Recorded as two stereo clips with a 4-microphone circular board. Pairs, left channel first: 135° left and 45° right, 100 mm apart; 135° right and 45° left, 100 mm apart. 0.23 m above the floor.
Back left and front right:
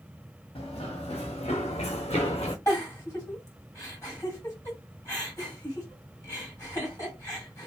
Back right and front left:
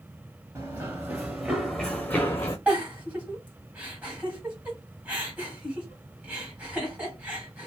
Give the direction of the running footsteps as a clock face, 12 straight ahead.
9 o'clock.